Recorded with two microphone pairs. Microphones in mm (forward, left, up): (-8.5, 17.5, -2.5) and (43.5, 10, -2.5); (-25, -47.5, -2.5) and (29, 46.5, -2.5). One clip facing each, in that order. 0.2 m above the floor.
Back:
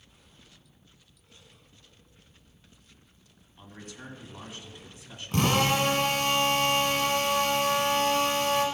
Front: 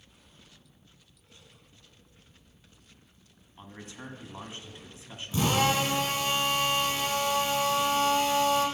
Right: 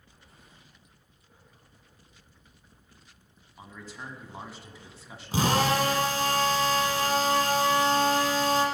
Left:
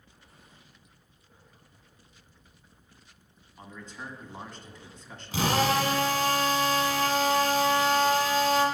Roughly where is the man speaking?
Ahead right.